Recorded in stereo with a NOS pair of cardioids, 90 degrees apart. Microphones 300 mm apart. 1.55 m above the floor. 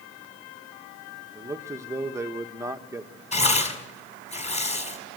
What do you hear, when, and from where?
1.4 s a man speaking: 10° right, 1.4 m
3.3 s tearing paper: 20° left, 5 m